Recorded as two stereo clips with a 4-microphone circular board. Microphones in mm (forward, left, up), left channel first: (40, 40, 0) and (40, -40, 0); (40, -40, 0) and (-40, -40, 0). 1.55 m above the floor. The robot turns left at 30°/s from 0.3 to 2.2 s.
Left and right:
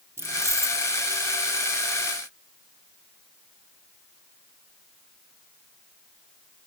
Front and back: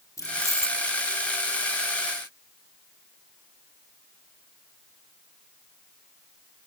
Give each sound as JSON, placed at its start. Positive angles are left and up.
{"t": 0.2, "sound": "keys jangling", "azimuth_deg": -40}